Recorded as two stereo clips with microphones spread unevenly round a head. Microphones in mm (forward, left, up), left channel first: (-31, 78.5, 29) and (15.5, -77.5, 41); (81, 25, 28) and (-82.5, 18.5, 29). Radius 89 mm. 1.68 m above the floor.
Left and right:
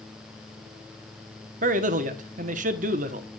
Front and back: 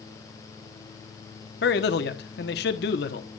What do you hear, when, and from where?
1.6 s a man speaking: 30° right, 1.1 m